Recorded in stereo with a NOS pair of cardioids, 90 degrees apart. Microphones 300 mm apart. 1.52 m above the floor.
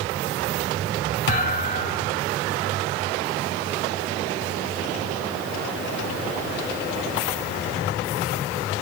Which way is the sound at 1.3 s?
35° left.